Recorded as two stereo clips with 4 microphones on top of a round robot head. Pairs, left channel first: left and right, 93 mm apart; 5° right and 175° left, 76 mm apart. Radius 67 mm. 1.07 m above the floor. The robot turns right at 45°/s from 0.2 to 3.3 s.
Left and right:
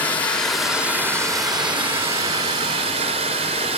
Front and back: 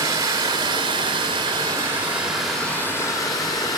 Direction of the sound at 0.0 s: 165° left.